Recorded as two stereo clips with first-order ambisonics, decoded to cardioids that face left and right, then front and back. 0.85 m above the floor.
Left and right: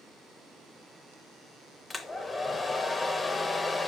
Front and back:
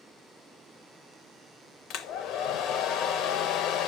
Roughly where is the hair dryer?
Ahead.